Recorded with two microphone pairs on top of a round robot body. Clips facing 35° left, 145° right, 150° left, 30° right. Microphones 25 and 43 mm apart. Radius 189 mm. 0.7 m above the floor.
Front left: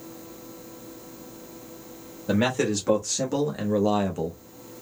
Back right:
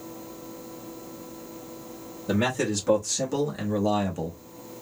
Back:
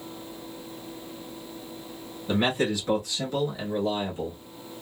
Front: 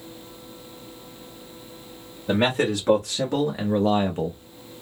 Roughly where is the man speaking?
Ahead right.